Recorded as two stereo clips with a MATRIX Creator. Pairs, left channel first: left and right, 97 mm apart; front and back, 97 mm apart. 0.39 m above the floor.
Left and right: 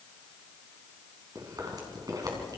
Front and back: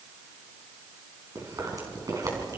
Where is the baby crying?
No baby crying in this recording.